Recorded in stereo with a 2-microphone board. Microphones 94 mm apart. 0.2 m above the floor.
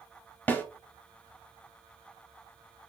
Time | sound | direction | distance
0.5 | a snare drum | 15° left (ahead or behind) | 0.7 m